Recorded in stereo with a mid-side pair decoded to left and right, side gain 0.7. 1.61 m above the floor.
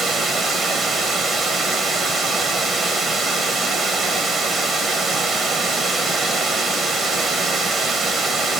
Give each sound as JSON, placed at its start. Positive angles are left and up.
{"t": 0.0, "sound": "running water", "azimuth_deg": -25, "distance_m": 1.4}